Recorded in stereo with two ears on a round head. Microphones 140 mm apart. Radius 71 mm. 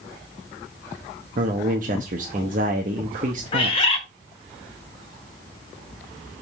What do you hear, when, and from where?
1.4 s a man speaking: 55° right (ahead or behind), 1.0 m
3.5 s a bird: 35° left (ahead or behind), 1.4 m